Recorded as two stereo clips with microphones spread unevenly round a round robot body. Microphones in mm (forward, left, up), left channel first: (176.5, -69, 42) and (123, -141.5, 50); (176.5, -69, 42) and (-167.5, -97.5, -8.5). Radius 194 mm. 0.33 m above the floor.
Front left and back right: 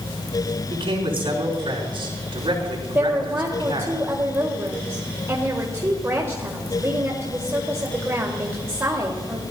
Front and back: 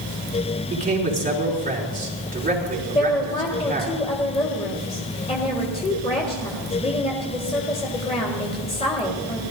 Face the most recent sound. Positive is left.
turn(degrees=-70)